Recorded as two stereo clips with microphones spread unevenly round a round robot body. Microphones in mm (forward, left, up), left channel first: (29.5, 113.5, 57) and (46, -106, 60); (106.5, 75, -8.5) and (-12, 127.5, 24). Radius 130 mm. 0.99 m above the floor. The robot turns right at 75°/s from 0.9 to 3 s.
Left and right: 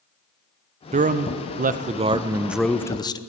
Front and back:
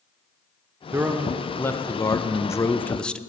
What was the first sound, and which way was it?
A man speaking, 120° right.